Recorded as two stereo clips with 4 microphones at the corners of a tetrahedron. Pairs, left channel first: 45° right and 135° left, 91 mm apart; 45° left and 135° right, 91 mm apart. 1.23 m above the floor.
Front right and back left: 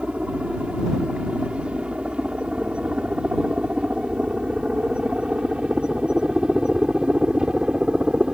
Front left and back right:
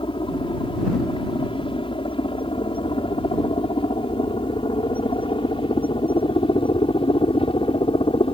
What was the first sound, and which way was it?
A helicopter, 60° left.